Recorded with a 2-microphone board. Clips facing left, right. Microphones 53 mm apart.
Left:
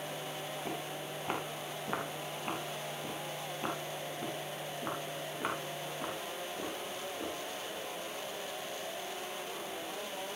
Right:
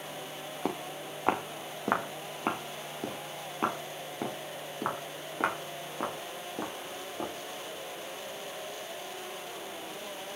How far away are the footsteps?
About 3.5 m.